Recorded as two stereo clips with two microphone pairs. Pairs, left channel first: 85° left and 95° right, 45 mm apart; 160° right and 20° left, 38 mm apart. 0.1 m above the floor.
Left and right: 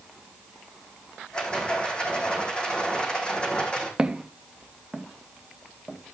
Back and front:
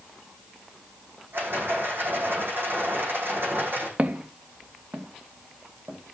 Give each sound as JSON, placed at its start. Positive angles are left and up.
{"t": 1.3, "sound": "a rattle", "azimuth_deg": 15, "distance_m": 5.5}
{"t": 4.0, "sound": "footsteps", "azimuth_deg": -25, "distance_m": 1.7}